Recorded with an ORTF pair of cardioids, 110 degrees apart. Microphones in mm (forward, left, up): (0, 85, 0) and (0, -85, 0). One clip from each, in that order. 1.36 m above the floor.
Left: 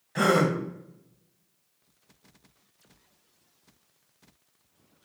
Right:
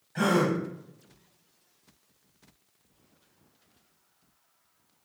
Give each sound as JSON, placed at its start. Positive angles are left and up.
{"t": 0.1, "sound": "a gasp", "azimuth_deg": 40, "distance_m": 0.8}